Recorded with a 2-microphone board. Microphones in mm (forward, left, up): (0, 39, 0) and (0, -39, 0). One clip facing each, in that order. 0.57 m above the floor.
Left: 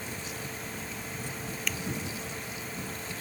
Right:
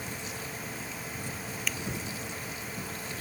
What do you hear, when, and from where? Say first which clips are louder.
1.7 s scissors: even; centre (ahead or behind)